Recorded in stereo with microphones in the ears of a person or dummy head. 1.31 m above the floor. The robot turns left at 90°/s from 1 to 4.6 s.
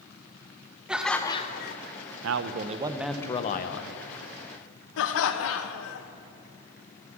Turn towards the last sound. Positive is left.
turn(degrees=75)  # may be behind; listen again after turning